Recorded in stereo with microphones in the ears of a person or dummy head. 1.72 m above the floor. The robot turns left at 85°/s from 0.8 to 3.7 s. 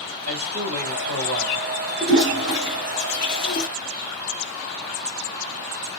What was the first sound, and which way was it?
A man speaking, 60° right.